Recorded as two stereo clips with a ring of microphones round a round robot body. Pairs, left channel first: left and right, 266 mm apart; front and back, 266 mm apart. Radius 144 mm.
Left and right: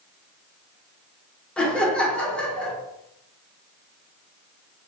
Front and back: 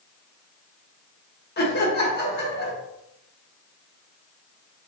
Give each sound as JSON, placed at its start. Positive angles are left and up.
{"t": 1.6, "sound": "laughter", "azimuth_deg": 5, "distance_m": 1.2}